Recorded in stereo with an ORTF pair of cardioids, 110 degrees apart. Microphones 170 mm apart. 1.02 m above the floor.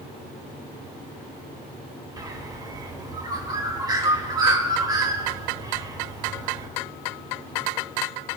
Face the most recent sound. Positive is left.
turn(degrees=-25)